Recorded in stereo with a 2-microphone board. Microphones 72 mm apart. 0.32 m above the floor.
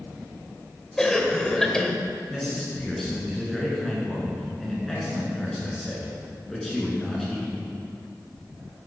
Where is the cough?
10° left (ahead or behind), 1.2 m.